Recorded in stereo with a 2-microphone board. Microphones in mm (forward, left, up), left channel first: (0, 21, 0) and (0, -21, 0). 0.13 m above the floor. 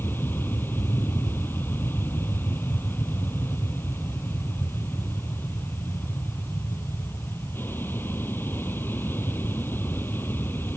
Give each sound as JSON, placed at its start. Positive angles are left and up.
{"t": 0.0, "sound": "an aircraft", "side_deg": 55}